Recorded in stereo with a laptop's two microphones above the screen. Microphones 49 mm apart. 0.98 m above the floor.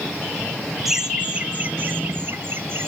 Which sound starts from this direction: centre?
Laughter, at 0.8 s.